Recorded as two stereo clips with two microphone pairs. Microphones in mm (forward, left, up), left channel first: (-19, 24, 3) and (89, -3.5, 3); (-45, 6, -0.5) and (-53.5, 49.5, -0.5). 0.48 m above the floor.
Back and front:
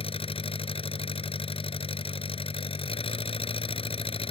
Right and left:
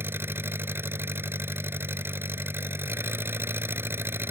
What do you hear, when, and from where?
0.0 s an engine running: 135° left